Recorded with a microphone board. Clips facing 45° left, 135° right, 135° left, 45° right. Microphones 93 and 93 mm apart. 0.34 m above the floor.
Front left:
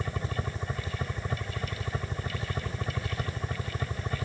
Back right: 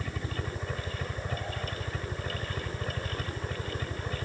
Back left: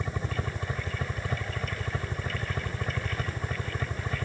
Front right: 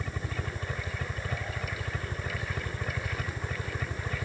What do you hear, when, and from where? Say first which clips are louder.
0.0 s a helicopter: front left 2 dB, back left 3 dB; 85° left; by 4.2 s 75° left